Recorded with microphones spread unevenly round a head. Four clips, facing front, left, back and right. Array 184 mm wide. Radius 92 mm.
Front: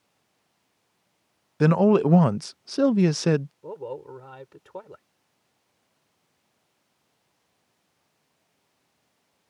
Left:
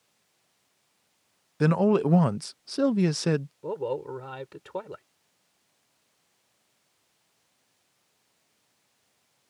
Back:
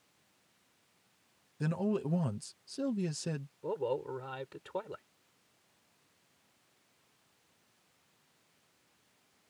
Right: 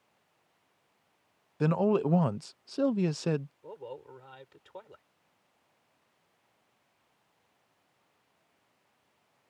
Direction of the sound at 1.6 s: 35° left.